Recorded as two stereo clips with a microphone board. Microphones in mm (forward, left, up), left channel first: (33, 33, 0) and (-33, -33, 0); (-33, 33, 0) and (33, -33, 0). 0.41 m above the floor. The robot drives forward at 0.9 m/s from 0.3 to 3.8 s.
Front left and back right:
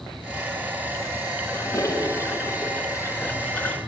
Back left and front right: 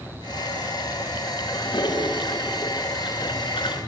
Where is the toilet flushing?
100° left, 5.5 m; by 3.8 s 120° left, 6.5 m.